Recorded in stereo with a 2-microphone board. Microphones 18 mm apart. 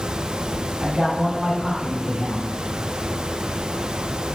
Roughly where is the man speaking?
Right.